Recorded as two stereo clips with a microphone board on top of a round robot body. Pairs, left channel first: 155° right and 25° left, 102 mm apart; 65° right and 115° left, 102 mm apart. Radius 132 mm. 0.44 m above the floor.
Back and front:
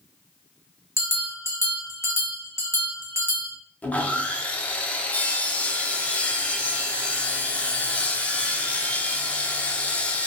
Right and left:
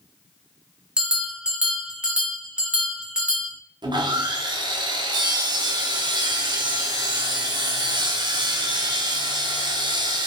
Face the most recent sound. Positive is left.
turn(degrees=130)